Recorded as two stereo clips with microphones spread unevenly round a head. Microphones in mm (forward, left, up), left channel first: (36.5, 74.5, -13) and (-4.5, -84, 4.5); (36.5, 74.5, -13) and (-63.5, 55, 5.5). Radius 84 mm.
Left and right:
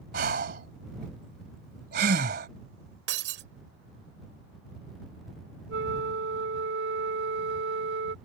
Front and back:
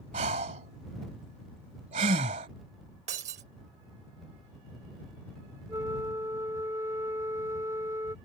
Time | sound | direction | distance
0.1 | breathing | 145° right | ?
3.1 | breaking glass | 130° right | ?
5.7 | a flute | 100° right | ?